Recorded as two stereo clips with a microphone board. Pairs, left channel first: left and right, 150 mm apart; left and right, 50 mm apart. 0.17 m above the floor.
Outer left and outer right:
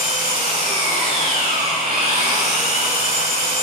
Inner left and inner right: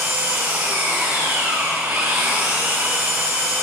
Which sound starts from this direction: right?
An engine running, at 0.0 s.